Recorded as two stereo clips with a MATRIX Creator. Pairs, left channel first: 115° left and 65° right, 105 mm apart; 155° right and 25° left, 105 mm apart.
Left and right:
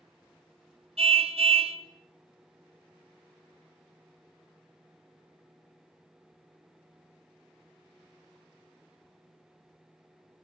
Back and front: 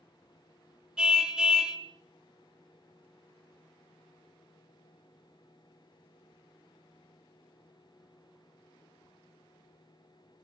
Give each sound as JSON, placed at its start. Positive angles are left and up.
{"t": 1.0, "sound": "a car horn", "azimuth_deg": -60, "distance_m": 2.5}